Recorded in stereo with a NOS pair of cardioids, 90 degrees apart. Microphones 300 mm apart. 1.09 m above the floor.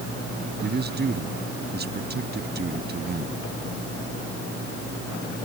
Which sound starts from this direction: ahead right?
A man speaking, at 0.6 s.